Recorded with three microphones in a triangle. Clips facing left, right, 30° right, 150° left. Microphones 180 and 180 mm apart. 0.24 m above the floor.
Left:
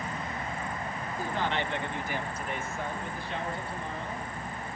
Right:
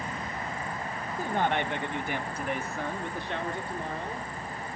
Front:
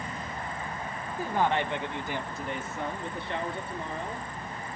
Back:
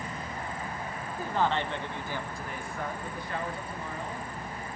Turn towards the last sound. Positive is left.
turn(degrees=-90)